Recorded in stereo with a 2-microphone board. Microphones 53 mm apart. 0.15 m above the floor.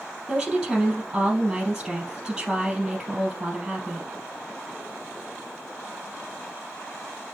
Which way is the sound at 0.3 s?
10° right (ahead or behind).